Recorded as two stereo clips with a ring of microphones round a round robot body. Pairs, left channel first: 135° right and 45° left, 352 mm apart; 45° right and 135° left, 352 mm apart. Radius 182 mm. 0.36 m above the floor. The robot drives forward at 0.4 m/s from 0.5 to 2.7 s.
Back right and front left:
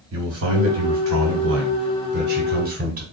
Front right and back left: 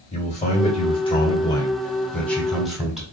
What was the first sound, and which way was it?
A man speaking, 20° left.